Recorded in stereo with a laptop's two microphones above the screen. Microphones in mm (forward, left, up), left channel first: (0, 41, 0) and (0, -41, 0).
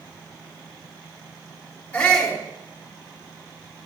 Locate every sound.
1.9 s a shout: 15° left (ahead or behind), 3 m